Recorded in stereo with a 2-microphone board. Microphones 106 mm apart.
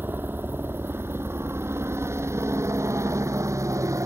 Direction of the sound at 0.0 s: 20° right (ahead or behind).